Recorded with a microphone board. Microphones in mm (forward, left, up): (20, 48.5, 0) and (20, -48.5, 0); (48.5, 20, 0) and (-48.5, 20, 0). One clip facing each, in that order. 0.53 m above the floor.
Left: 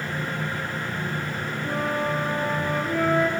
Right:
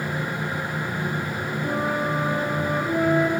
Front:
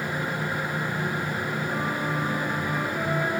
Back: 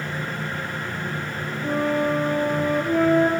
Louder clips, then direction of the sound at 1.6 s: Right 1 dB, back 11 dB; 150° right.